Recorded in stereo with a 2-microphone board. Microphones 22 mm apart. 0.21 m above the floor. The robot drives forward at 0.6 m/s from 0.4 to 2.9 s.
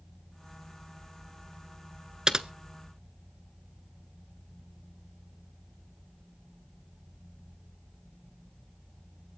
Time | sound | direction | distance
2.3 | typing on a keyboard | 35° right (ahead or behind) | 0.7 m